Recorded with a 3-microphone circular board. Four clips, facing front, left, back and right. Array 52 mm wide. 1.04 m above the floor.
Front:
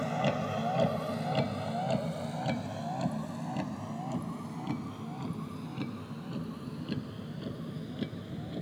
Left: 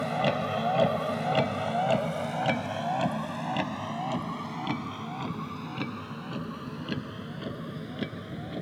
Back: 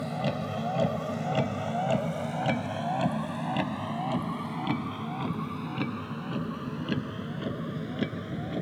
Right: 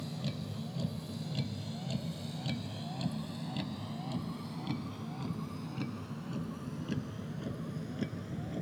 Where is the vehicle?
75° left; by 8.6 s 160° left.